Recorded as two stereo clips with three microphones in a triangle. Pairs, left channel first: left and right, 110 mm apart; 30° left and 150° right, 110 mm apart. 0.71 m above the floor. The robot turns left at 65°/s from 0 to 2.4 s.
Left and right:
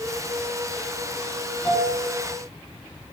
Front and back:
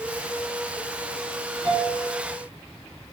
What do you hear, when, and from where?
1.6 s a piano: 170° left, 3.5 m; by 2.0 s 145° left, 3.5 m